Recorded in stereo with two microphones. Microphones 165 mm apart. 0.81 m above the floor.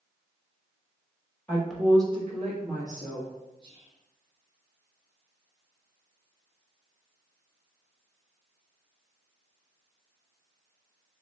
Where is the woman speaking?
15° left (ahead or behind), 0.7 m; by 3.3 s 60° right (ahead or behind), 1.5 m.